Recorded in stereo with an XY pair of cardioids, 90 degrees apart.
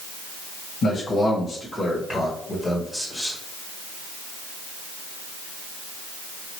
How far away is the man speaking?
About 1.9 m.